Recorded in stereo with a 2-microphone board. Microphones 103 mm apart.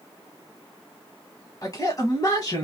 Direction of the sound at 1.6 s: 40° left (ahead or behind).